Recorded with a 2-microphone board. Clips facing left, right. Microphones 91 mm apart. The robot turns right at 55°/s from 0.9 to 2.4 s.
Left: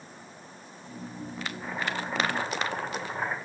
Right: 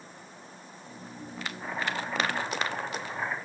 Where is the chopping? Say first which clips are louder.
Right 1 dB; 5° right, 1.6 m; by 3.4 s 40° left, 1.6 m.